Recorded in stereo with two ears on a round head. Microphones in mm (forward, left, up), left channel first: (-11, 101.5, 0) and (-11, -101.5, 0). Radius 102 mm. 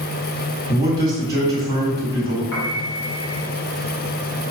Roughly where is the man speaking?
Centre.